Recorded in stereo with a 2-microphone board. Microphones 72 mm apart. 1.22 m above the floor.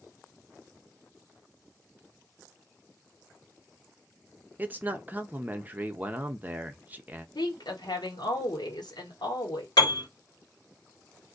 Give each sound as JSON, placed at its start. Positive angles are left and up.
{"t": 4.6, "sound": "a man speaking", "side_deg": -25, "distance_m": 0.5}
{"t": 7.3, "sound": "a woman speaking", "side_deg": 80, "distance_m": 1.3}
{"t": 9.8, "sound": "a piano", "side_deg": 75, "distance_m": 1.5}